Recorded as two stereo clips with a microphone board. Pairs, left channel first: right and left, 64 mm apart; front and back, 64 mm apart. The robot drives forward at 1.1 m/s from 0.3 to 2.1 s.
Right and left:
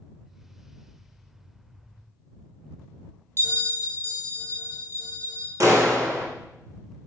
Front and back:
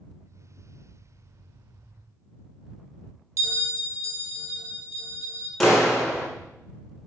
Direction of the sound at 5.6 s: 85° left.